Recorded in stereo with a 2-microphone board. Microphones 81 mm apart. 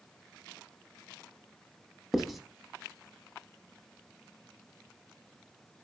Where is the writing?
Centre (ahead or behind), 0.5 m.